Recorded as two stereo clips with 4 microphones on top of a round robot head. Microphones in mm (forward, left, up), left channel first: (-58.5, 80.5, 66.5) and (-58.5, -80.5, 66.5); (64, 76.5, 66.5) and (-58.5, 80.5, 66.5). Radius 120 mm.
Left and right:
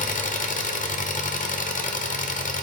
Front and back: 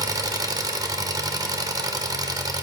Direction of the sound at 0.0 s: 120° left.